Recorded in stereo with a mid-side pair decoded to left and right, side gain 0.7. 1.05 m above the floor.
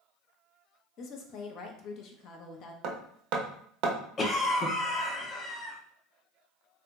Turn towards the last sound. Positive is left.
turn(degrees=30)